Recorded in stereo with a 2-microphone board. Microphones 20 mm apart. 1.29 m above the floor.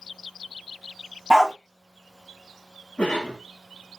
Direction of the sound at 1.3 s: 20° right (ahead or behind).